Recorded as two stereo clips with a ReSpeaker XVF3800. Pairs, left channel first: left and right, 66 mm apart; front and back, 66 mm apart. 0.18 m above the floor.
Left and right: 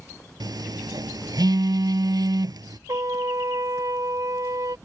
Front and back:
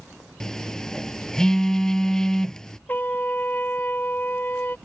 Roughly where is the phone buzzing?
Right.